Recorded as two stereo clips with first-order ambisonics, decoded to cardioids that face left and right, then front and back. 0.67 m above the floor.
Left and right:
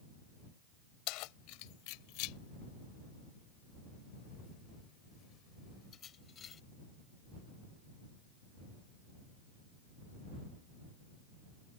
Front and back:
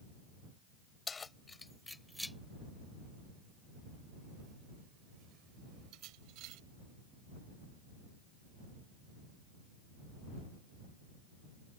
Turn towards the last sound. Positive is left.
turn(degrees=155)